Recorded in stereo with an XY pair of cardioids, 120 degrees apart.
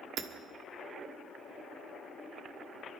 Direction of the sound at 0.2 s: 60° right.